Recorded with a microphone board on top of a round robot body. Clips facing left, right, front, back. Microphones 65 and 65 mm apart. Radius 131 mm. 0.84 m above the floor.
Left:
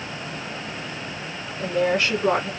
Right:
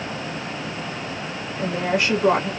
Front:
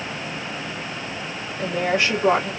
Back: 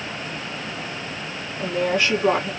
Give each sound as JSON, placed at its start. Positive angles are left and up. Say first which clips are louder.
{"t": 1.6, "sound": "a woman speaking", "louder": "left 1 dB, even", "azimuth_deg": -70, "distance_m": 2.0}